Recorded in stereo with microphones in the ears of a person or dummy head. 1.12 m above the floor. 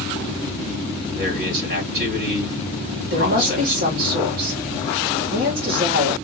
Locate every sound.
1.1 s a man speaking: 55° right (ahead or behind), 3 m
3.0 s a woman speaking: 55° right (ahead or behind), 2.5 m